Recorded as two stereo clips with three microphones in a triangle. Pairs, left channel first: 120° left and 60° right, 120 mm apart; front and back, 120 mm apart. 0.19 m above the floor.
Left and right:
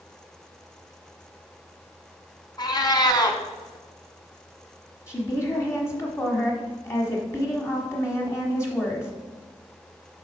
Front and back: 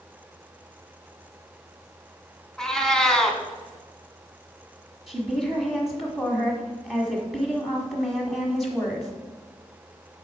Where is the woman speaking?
90° left, 1.2 m.